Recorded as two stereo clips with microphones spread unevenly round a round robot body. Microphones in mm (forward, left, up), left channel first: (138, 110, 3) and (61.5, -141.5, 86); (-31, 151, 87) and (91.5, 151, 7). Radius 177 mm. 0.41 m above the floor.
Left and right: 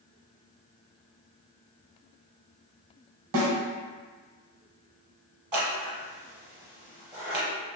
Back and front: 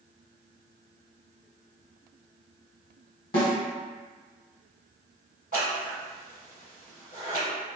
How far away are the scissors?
About 0.9 m.